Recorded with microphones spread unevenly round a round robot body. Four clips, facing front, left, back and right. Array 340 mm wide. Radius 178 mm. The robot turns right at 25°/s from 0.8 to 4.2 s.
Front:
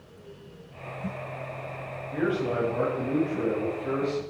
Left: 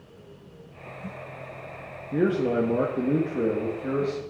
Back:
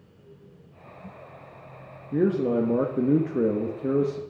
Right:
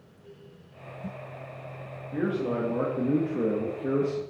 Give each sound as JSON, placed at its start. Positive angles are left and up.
{"t": 2.1, "sound": "a man speaking", "azimuth_deg": 145, "distance_m": 1.3}